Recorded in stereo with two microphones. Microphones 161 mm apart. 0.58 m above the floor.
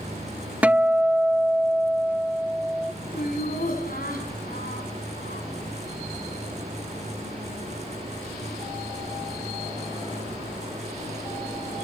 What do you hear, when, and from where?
0.6 s a guitar: 10° right (ahead or behind), 0.6 m
3.1 s laughter: 60° left (ahead or behind), 6.5 m